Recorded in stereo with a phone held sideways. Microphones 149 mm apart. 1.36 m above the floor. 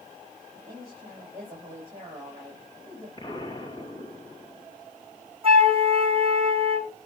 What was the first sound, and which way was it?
A woman speaking, 20° right (ahead or behind).